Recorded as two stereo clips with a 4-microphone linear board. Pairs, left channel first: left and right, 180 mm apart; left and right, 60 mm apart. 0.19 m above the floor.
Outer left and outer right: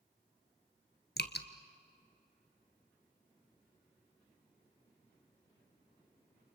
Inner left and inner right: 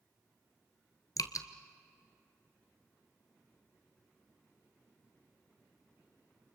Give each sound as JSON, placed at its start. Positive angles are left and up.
{"t": 1.2, "sound": "dripping", "side_deg": 65, "distance_m": 1.4}